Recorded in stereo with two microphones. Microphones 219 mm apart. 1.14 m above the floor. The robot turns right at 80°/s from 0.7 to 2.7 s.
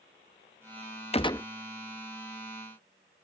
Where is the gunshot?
30° left (ahead or behind); by 1.5 s 15° left (ahead or behind).